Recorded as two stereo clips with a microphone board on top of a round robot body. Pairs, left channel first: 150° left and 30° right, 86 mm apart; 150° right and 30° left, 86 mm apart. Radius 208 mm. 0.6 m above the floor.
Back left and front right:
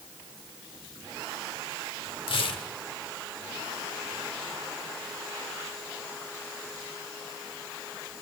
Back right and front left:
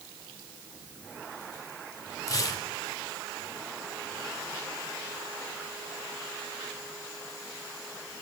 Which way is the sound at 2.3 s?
160° left.